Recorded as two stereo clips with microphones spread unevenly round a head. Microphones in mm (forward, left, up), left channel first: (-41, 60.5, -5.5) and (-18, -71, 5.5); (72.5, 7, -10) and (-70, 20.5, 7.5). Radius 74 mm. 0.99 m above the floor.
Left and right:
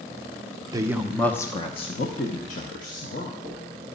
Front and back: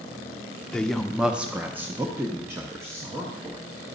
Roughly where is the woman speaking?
Ahead right.